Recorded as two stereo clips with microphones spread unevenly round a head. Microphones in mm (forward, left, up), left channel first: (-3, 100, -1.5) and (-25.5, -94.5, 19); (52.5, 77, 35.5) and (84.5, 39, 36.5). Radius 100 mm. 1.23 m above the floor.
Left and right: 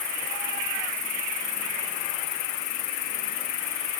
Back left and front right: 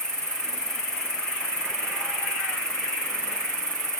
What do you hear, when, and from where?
0.0 s an insect: 50° left, 4.5 m